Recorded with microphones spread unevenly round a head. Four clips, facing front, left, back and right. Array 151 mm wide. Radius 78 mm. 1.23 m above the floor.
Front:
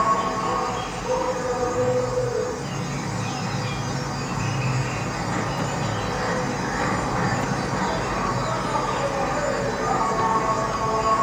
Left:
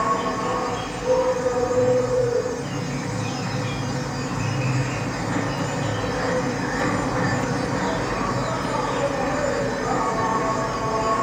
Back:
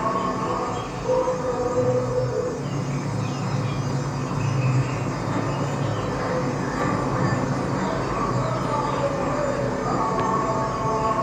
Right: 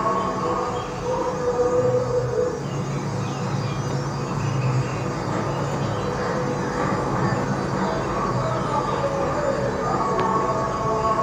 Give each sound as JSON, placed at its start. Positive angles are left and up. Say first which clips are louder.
{"t": 0.0, "sound": "an insect", "louder": "even, front 2 dB", "azimuth_deg": -165, "distance_m": 1.8}